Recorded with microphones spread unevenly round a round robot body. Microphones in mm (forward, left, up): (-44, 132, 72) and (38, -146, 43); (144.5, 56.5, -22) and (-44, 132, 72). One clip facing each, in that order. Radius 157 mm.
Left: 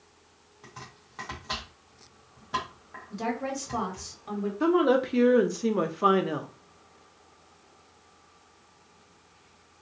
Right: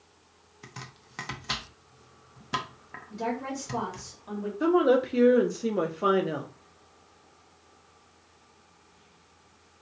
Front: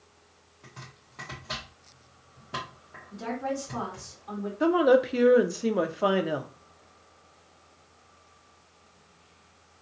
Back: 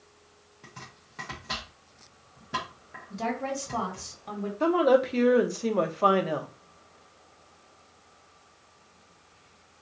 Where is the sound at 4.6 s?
25° left, 0.7 m.